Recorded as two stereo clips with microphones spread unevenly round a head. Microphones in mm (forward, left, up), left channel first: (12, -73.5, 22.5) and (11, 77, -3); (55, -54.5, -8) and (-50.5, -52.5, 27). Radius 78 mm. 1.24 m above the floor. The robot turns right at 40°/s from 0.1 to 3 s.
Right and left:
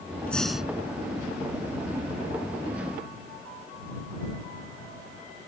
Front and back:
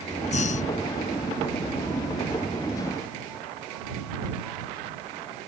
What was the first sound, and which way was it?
Breathing, 15° right.